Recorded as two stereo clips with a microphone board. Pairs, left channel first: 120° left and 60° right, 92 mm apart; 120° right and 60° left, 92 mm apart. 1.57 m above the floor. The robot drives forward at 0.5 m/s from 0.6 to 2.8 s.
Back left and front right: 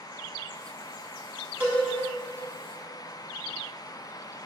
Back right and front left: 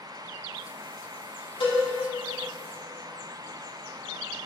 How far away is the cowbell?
About 3 m.